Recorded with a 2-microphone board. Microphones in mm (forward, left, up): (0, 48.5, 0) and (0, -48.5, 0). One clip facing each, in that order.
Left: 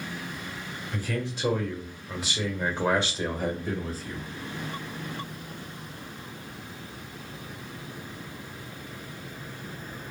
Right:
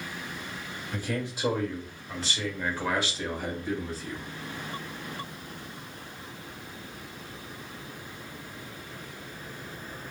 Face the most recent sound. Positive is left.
turn(degrees=45)  # may be behind; listen again after turning